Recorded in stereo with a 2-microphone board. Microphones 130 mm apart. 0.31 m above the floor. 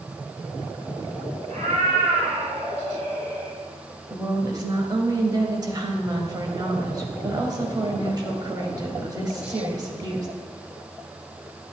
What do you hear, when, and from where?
1.5 s a cat meowing: 65° right (ahead or behind), 3 m; by 3.5 s 70° right (ahead or behind), 4 m
4.1 s a woman speaking: 30° right (ahead or behind), 1.1 m